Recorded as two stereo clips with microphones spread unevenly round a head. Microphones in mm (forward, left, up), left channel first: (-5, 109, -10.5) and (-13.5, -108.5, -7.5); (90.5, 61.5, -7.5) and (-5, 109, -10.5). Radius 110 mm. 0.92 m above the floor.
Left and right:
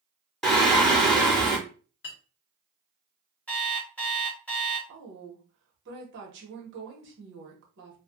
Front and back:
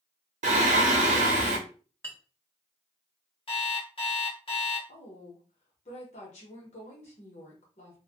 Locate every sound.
0.4 s singing: 175° left, 0.7 m
2.0 s a clink: 40° left, 1.2 m
3.5 s an alarm clock: 5° left, 1.3 m
4.9 s a woman speaking: 55° right, 1.1 m